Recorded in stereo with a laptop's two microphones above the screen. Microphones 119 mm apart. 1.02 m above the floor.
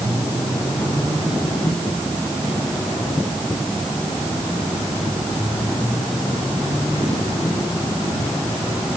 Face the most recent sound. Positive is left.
No sound to turn to.